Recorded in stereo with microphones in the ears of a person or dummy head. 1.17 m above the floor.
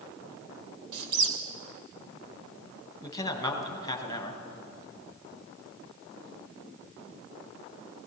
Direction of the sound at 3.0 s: 25° left (ahead or behind).